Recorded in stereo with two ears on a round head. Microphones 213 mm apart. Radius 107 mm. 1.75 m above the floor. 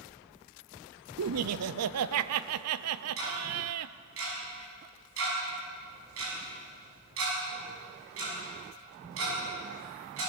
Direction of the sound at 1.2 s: 70° right (ahead or behind).